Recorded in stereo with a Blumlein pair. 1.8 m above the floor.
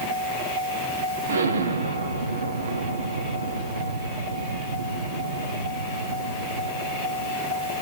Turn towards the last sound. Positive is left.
turn(degrees=-70)